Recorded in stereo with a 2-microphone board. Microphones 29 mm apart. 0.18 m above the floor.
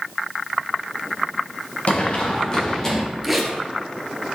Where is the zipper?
Centre (ahead or behind), 1.3 m.